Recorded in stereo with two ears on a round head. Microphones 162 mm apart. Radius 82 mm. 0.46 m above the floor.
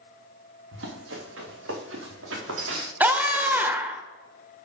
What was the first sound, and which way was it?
Running footsteps, 75° right (ahead or behind).